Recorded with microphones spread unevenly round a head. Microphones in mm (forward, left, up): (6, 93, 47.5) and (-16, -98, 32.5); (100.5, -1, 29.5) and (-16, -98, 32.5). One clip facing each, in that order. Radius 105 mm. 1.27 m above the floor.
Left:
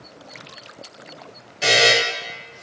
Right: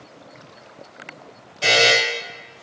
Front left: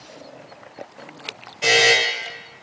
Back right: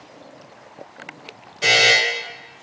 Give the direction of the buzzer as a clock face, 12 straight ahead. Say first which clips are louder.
Even, front left 2 dB; 7 o'clock.